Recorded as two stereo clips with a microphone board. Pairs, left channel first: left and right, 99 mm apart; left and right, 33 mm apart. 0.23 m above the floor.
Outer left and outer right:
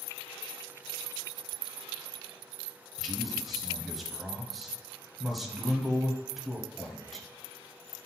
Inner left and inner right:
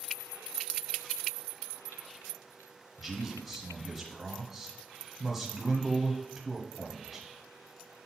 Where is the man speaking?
Centre (ahead or behind), 1.2 m.